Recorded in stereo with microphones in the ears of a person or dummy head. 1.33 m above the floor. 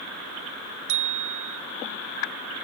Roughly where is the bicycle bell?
Right.